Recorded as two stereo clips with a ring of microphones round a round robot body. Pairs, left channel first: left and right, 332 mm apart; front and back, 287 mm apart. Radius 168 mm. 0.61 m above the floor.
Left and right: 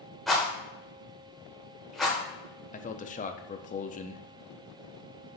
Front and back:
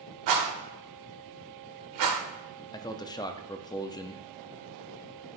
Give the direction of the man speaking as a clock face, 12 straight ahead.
10 o'clock.